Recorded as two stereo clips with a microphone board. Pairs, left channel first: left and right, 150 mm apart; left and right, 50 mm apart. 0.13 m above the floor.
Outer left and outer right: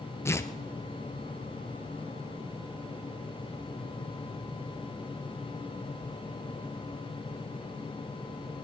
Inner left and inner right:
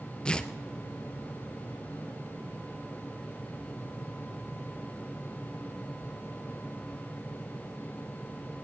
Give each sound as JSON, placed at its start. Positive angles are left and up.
{"t": 0.2, "sound": "tearing paper", "side_deg": 20, "distance_m": 0.9}